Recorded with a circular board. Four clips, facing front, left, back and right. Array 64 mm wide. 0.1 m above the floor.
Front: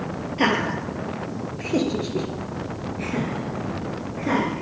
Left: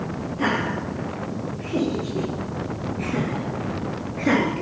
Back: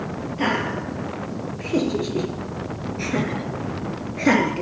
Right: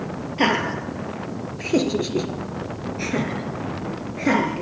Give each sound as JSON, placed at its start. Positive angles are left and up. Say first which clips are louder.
{"t": 0.4, "sound": "laughter", "louder": "right 3 dB, front 2 dB", "azimuth_deg": -65, "distance_m": 2.0}